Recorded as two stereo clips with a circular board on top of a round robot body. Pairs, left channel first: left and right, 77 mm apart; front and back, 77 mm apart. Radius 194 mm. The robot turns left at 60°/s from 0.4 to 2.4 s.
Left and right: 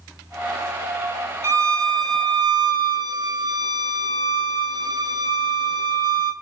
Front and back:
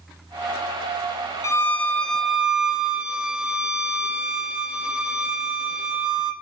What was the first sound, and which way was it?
A violin, 40° right.